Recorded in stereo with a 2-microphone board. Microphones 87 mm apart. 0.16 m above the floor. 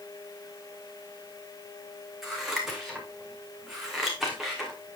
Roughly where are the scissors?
Centre.